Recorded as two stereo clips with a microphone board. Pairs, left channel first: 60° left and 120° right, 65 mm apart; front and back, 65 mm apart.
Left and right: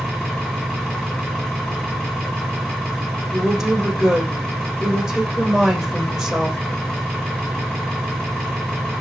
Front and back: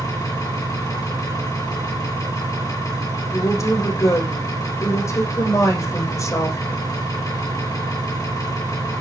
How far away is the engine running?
About 8 m.